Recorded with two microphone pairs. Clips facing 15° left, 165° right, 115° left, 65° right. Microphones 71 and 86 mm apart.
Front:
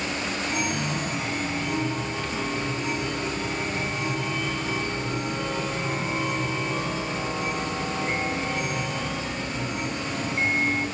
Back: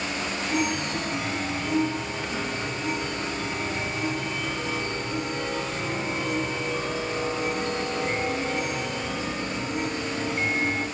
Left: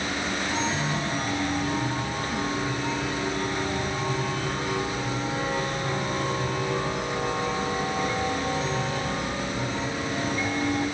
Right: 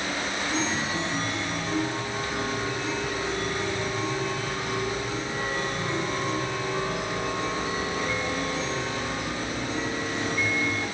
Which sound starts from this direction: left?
A chime, at 0.5 s.